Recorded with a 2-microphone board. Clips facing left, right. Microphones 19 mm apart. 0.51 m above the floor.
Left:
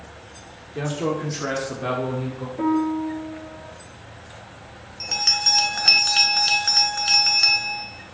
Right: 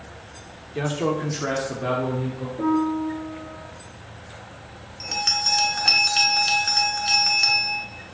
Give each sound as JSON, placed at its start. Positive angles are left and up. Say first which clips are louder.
{"t": 0.8, "sound": "a man speaking", "louder": "right 1 dB", "side_deg": -20, "distance_m": 1.1}
{"t": 2.6, "sound": "a piano", "louder": "even", "side_deg": 60, "distance_m": 1.7}
{"t": 5.0, "sound": "a bell", "louder": "left 3 dB", "side_deg": 10, "distance_m": 0.7}